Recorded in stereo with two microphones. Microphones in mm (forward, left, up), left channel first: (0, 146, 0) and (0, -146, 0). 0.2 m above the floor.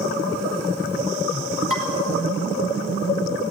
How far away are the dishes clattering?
About 2.5 m.